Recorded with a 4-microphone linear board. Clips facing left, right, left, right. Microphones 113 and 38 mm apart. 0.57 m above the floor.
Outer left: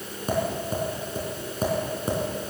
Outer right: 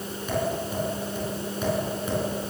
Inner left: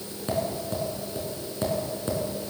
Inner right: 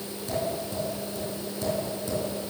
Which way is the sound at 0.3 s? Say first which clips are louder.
Outer left 1 dB, inner left 2 dB; 40° left (ahead or behind).